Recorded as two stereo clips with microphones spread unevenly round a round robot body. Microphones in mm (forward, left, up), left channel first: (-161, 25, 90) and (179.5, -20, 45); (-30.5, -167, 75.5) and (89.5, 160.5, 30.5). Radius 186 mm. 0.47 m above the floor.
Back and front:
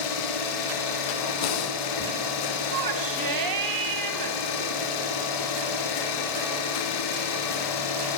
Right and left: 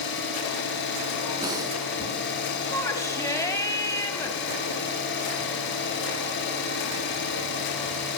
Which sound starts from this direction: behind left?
Breathing, at 1.4 s.